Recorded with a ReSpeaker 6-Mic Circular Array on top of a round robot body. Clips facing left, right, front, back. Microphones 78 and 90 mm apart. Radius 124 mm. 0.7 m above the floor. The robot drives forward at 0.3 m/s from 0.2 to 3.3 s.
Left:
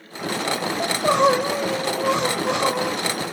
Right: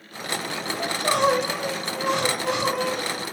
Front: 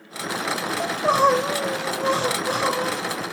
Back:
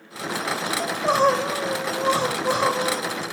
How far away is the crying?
About 0.9 m.